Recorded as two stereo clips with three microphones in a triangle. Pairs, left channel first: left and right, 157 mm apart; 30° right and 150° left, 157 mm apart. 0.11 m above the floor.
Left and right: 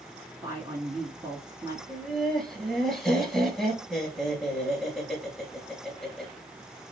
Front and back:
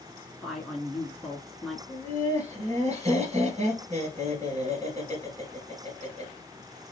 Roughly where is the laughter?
Behind.